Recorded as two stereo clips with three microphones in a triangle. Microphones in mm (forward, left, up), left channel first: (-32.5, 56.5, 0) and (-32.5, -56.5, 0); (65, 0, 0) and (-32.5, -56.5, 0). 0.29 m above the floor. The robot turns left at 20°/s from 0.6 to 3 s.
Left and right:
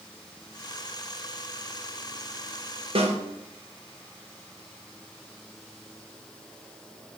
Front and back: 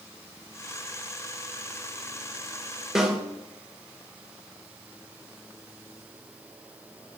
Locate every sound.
3.0 s a snare drum: 65° right, 2.5 m